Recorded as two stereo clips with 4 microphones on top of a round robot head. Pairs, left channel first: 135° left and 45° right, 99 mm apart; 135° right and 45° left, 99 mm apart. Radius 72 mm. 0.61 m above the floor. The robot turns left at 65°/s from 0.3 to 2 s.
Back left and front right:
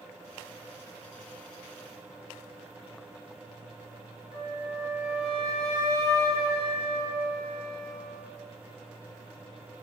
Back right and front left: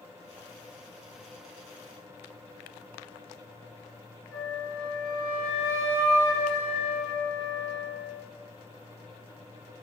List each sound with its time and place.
4.3 s a flute: 155° left, 1.5 m